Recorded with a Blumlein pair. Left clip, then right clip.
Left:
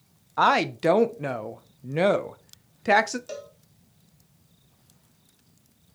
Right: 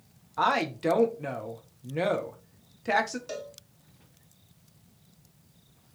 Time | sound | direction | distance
0.4 | a woman speaking | 20° left | 0.7 m
3.3 | a cowbell | straight ahead | 1.7 m